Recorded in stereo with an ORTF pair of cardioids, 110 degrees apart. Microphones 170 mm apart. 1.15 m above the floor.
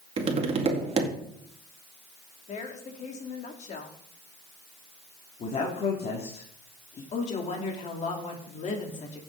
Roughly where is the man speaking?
Ahead left.